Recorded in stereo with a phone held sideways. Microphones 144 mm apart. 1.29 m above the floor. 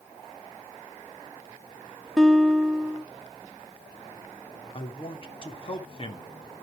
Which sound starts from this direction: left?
A man speaking, at 4.7 s.